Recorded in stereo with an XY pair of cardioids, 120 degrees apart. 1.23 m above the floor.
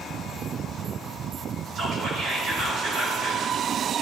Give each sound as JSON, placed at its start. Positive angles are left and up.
{"t": 1.8, "sound": "whispering", "azimuth_deg": -65, "distance_m": 3.0}